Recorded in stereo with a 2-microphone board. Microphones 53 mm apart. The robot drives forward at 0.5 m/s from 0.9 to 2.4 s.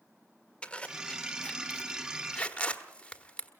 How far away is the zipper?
About 1.4 m.